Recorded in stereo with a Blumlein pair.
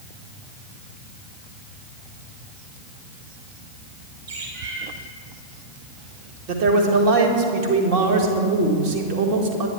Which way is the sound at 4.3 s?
55° right.